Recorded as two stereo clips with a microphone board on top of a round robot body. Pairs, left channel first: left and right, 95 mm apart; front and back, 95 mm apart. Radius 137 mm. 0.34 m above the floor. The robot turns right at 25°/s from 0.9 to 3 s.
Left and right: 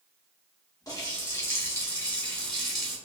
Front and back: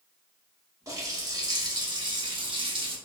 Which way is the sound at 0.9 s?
135° left.